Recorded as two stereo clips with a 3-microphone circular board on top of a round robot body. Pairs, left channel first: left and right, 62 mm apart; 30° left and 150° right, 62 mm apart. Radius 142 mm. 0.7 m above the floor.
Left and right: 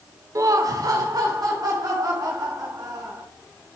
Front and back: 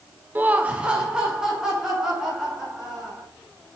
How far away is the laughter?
About 0.6 m.